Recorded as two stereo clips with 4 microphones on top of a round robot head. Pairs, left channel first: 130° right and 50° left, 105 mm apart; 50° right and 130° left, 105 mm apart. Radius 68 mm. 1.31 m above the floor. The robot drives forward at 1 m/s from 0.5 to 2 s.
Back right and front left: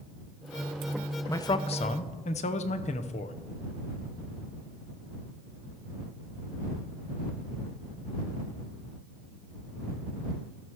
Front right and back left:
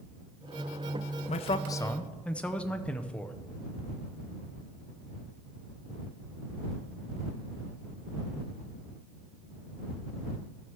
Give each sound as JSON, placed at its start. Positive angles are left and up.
{"t": 1.3, "sound": "a man speaking", "azimuth_deg": -65, "distance_m": 0.6}